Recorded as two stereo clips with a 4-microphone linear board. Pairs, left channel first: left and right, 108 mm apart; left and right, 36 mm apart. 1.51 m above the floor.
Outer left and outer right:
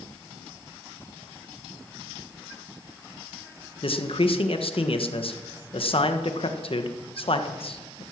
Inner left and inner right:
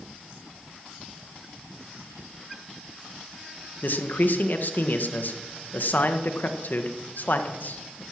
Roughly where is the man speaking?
Left.